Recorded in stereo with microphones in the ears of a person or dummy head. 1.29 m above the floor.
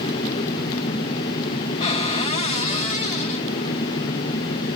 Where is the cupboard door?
25° left (ahead or behind), 3 m.